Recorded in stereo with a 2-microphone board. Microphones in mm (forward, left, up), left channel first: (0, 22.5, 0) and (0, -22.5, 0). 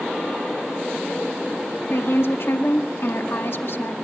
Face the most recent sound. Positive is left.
turn(degrees=60)  # may be behind; listen again after turning